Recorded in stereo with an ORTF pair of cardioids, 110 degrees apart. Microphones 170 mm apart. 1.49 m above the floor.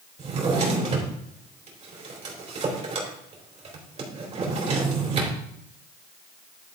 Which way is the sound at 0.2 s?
40° right.